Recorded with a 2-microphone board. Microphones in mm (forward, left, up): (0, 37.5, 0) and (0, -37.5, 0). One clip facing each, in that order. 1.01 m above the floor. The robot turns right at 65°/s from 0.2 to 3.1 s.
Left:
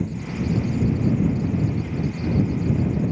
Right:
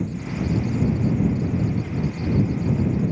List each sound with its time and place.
Only background noise.